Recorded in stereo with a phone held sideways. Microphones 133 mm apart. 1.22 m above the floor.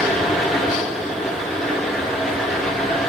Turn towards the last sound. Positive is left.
turn(degrees=0)  # may be behind; listen again after turning